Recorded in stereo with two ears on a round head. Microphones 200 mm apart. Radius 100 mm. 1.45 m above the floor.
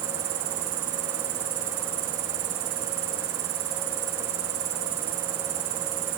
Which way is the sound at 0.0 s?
65° right (ahead or behind).